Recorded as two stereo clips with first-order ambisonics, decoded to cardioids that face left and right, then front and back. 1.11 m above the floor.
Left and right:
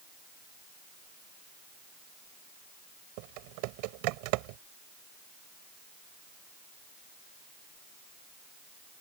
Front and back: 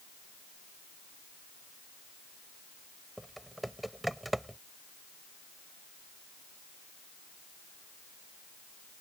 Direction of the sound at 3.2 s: 95° right.